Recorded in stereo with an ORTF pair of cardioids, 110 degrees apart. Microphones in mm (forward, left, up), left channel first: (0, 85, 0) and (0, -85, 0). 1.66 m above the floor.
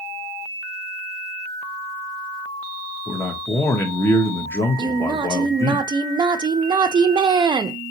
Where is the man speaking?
15° left, 0.9 m.